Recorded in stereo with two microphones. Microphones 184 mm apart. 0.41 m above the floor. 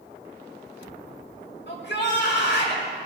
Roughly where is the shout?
Left.